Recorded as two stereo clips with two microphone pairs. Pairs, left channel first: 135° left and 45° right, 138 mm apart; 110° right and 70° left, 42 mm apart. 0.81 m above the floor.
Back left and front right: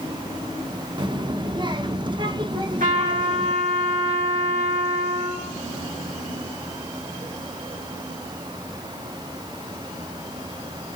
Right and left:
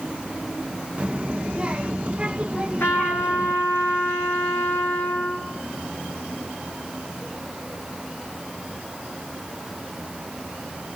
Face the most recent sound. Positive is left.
turn(degrees=-75)